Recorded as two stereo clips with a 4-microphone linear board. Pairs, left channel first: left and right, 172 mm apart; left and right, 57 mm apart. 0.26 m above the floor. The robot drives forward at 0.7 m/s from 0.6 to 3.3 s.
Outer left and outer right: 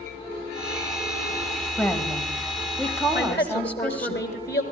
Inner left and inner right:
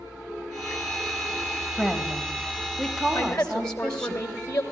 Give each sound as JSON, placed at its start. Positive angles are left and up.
{"t": 1.8, "sound": "a woman speaking", "side_deg": 10, "distance_m": 1.4}
{"t": 3.1, "sound": "a woman speaking", "side_deg": 65, "distance_m": 3.5}